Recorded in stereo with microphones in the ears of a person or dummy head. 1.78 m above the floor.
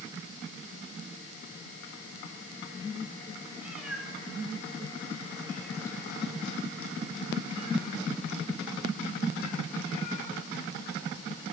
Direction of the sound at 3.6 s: 10° right (ahead or behind).